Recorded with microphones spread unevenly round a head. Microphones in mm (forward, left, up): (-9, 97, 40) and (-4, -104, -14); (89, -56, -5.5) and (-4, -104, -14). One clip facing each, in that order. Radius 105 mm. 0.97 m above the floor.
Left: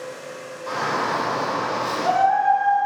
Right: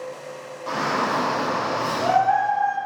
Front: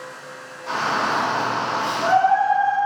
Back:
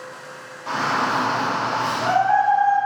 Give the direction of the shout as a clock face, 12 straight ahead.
4 o'clock.